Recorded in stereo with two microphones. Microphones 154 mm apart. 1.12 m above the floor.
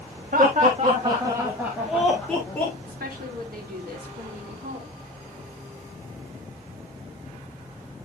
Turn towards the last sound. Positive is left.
turn(degrees=-80)